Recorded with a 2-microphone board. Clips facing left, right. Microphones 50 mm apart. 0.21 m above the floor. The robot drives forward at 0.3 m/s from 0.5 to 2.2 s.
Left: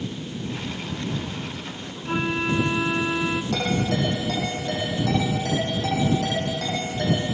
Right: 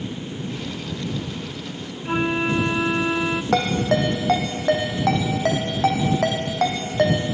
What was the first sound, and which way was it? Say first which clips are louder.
A flute: right 3 dB; 15° right (ahead or behind).